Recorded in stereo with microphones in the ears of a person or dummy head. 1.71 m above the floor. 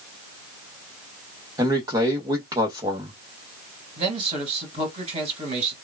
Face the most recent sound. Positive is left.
turn(degrees=-30)  # may be behind; listen again after turning